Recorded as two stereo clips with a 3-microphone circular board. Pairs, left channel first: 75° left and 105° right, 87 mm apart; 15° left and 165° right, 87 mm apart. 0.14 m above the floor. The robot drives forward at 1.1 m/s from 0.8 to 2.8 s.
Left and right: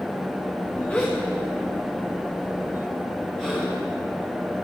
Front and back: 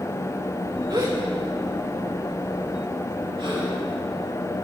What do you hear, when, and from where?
0.9 s a gasp: 150° left, 3.5 m; by 3.7 s 160° left, 5.5 m